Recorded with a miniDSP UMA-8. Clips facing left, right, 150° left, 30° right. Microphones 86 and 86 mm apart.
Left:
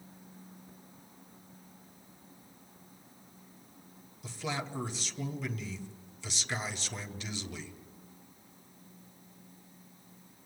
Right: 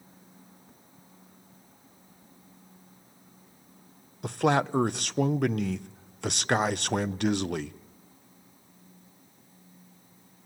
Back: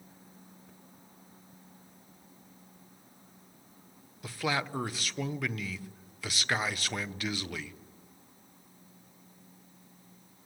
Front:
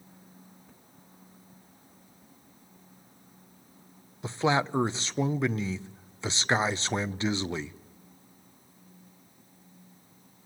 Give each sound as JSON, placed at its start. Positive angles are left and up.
{"t": 4.2, "sound": "a man speaking", "azimuth_deg": -90, "distance_m": 0.7}